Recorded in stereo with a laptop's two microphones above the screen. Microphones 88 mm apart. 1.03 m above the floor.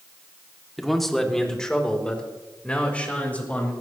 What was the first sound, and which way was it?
A man speaking, centre (ahead or behind).